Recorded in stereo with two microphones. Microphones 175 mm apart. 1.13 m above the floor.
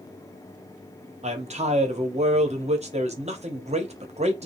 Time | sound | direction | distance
1.2 | a man speaking | 40° right (ahead or behind) | 0.8 m